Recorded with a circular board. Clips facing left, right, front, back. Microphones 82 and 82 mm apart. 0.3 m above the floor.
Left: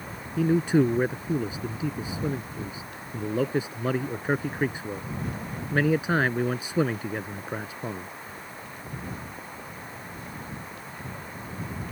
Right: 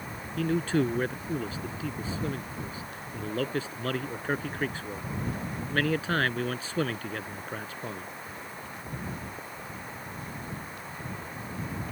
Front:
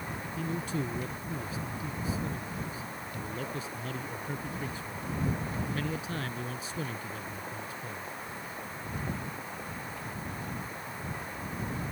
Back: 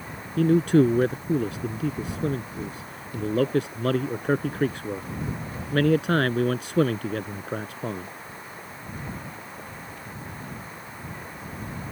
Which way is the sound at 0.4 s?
165° left.